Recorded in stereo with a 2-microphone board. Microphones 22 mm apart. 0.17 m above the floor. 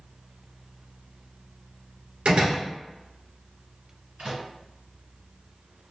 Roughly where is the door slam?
Right.